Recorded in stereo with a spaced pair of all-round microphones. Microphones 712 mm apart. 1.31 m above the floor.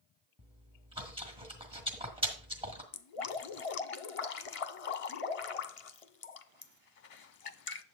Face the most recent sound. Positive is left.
turn(degrees=50)  # may be behind; listen again after turning